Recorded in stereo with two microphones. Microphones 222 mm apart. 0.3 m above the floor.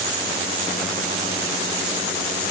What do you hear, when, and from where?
Only background noise.